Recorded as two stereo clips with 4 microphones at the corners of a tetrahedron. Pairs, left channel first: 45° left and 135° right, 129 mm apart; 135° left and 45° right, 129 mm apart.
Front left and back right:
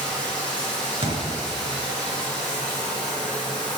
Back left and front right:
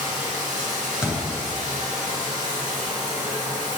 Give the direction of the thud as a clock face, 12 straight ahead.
4 o'clock.